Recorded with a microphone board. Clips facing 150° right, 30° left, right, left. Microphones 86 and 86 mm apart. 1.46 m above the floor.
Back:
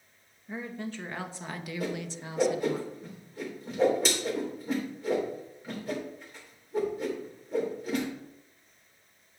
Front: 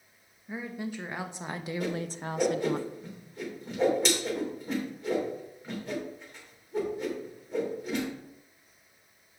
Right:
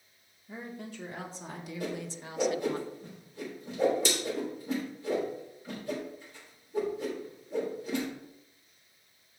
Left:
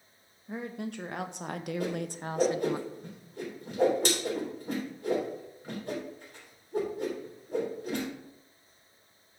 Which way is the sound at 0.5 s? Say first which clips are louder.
Front 1 dB, left 5 dB; 115° left.